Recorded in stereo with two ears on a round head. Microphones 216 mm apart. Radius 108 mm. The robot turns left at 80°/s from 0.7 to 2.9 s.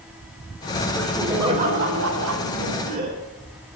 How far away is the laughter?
About 3.5 m.